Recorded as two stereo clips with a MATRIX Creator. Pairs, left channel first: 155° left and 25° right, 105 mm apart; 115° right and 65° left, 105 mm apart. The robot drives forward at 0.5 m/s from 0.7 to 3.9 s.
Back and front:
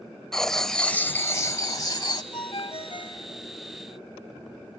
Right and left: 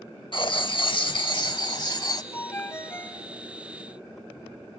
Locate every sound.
0.3 s writing: 115° right, 0.6 m; by 2.2 s 155° right, 1.1 m
2.3 s a ringtone: 175° right, 1.2 m; by 3.3 s straight behind, 1.6 m